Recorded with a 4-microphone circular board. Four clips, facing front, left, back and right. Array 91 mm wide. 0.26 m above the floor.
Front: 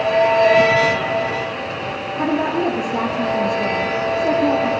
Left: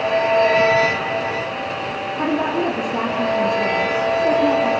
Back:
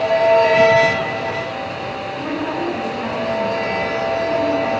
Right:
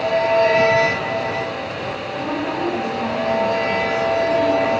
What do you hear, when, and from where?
2.2 s a woman speaking: 35° left, 5.5 m